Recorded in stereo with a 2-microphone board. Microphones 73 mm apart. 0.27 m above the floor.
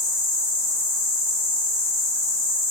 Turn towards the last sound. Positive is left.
turn(degrees=-45)  # may be behind; listen again after turning